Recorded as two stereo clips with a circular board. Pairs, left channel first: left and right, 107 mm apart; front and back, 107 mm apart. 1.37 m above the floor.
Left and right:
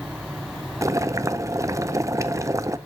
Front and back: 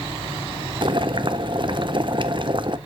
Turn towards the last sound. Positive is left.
turn(degrees=-150)